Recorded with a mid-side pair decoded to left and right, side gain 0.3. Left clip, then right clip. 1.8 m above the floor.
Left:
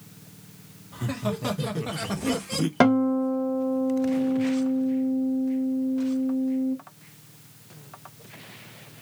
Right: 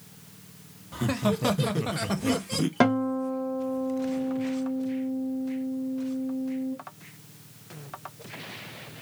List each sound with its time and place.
0.9 s laughter: 60° right, 0.9 m; by 2.7 s 10° left, 0.6 m
2.8 s a guitar: 30° left, 1.1 m